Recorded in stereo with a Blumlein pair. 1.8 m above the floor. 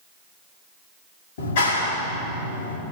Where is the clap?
55° left, 4.5 m.